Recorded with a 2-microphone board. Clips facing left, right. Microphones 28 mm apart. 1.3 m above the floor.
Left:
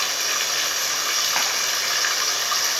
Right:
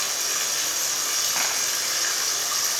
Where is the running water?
25° left (ahead or behind), 2.5 m.